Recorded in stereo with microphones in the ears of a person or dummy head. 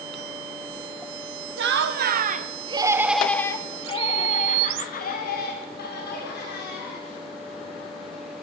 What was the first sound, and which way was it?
Laughter, 70° right (ahead or behind).